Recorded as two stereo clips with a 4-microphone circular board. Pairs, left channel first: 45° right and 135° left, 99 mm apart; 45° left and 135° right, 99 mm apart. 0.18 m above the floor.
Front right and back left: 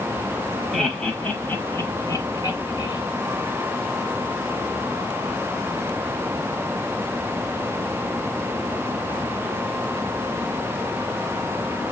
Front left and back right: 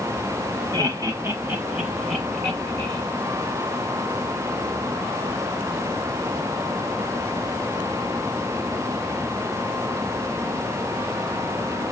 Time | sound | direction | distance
0.7 | laughter | 135° right | 1.4 m